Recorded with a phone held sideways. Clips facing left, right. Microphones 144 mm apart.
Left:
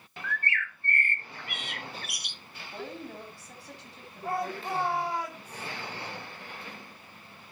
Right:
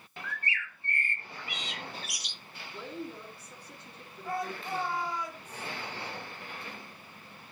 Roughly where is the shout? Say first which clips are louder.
Left 3 dB; left.